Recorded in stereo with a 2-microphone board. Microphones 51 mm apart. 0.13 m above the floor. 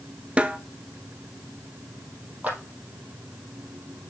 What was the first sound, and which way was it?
A snare drum, 25° right (ahead or behind).